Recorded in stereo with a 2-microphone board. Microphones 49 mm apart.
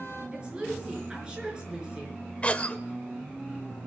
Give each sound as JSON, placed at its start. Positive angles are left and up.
{"t": 0.3, "sound": "a woman speaking", "side_deg": -15, "distance_m": 5.5}
{"t": 2.4, "sound": "a cough", "side_deg": 30, "distance_m": 1.0}